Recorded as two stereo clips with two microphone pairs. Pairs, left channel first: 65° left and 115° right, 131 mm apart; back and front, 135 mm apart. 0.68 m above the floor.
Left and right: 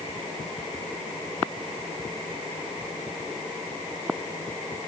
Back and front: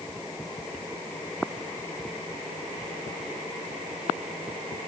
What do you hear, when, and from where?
Only background noise.